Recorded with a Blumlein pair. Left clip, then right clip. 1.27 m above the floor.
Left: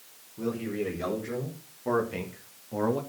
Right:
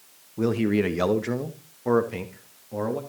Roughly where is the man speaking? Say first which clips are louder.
Right 8 dB; ahead right.